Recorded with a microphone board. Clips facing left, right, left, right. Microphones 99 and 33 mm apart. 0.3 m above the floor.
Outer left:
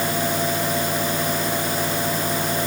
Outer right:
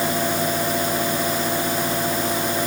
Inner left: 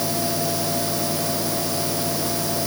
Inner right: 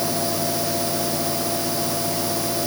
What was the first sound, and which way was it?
Only background noise.